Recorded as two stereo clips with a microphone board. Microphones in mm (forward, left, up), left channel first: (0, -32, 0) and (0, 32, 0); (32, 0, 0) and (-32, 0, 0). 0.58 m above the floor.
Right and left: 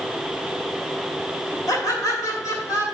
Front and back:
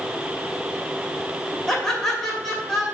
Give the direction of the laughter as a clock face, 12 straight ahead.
3 o'clock.